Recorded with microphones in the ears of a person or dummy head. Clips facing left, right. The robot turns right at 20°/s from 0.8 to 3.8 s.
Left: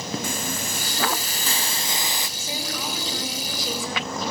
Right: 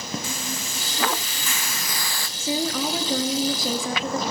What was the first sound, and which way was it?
A hiss, 40° left (ahead or behind).